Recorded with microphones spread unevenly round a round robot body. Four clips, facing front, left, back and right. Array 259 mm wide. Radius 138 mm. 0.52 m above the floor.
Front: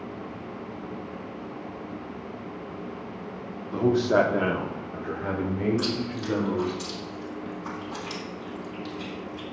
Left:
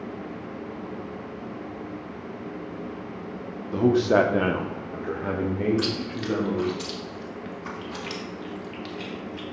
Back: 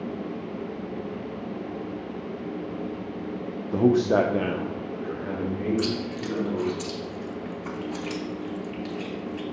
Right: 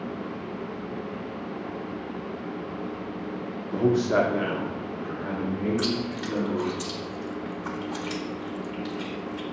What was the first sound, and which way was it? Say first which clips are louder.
A man speaking: left 3 dB, back 1 dB; 170° right.